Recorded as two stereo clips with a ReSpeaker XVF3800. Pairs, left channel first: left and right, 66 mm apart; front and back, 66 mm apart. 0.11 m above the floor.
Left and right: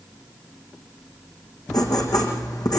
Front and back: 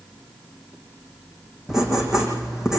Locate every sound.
1.7 s writing: 95° left, 6.5 m